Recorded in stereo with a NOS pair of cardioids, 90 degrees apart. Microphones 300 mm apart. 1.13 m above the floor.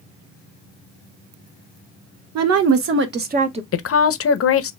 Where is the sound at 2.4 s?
65° right, 1.3 m; by 3.6 s 20° right, 1.1 m.